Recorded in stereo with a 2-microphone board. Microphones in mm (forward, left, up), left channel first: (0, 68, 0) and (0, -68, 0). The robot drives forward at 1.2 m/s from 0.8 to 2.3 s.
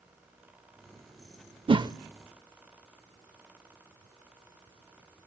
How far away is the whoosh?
About 0.5 m.